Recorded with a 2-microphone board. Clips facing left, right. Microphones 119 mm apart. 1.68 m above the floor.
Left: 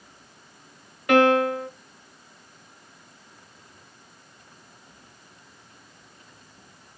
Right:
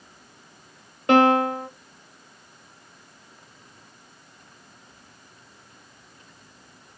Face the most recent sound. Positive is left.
turn(degrees=-30)  # may be behind; listen again after turning